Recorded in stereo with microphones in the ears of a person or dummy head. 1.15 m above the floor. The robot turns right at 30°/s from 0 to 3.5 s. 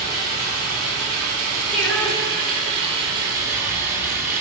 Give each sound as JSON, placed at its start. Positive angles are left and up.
{"t": 0.0, "sound": "running water", "azimuth_deg": -120, "distance_m": 2.5}
{"t": 1.7, "sound": "singing", "azimuth_deg": -5, "distance_m": 3.0}